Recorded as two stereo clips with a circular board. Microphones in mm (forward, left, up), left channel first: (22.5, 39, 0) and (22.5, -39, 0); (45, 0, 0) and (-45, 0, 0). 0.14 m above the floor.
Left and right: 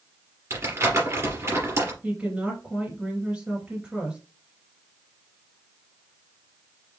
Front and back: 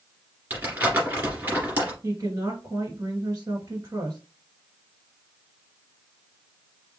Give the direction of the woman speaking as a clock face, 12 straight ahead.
5 o'clock.